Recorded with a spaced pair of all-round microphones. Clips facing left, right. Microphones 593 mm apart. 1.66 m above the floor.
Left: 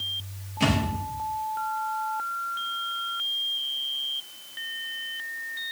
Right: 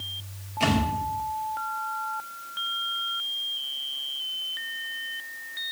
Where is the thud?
40° left (ahead or behind), 4 m.